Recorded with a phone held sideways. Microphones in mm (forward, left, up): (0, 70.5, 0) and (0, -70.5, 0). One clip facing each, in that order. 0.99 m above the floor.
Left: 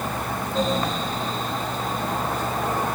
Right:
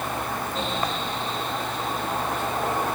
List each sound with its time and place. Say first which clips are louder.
0.0 s a fan: left 1 dB; 40° left (ahead or behind)